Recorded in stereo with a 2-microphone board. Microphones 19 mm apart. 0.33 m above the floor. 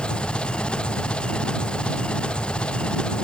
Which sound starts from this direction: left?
An engine running, at 0.0 s.